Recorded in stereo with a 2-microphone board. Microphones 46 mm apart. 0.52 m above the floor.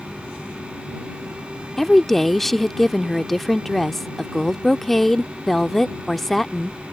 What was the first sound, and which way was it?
A woman speaking, 5° left (ahead or behind).